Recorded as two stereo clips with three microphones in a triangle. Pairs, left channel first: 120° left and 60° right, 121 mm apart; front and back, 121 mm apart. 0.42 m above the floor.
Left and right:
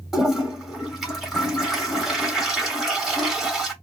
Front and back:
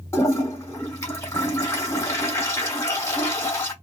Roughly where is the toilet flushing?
Ahead left.